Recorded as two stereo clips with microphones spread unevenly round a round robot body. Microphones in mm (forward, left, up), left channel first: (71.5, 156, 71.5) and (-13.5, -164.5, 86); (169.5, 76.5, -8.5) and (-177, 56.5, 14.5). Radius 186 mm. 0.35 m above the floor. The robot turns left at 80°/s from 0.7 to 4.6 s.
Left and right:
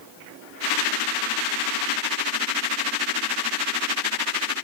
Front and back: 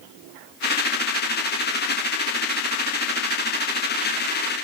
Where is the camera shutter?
I don't hear a camera shutter.